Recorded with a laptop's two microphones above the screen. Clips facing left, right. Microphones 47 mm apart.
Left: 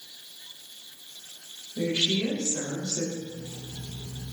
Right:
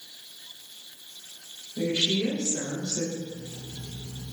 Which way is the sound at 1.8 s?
20° left (ahead or behind).